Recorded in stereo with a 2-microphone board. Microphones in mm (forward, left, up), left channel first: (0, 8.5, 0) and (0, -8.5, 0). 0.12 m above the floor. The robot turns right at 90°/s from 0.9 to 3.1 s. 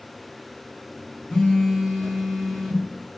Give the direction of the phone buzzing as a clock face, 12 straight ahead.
9 o'clock.